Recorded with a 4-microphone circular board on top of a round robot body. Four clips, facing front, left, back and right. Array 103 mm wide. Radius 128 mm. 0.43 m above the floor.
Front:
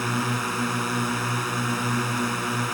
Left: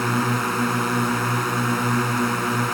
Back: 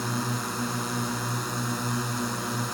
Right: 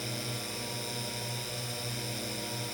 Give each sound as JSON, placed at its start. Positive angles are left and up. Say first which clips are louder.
{"t": 0.0, "sound": "a drone", "louder": "left 17 dB, front 4 dB", "azimuth_deg": 75}